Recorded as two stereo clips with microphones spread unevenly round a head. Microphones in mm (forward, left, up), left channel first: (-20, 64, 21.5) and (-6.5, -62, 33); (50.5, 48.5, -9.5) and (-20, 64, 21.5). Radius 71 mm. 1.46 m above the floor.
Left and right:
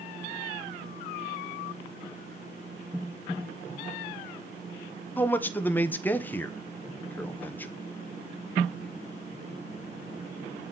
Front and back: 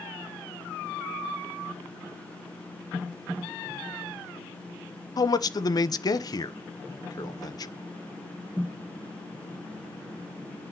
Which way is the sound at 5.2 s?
20° left.